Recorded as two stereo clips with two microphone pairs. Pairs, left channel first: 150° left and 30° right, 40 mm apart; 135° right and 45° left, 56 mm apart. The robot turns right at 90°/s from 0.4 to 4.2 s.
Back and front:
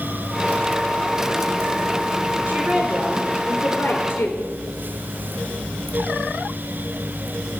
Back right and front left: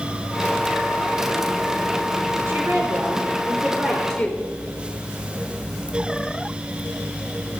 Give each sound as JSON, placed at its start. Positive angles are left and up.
{"t": 2.5, "sound": "a woman speaking", "azimuth_deg": -5, "distance_m": 3.5}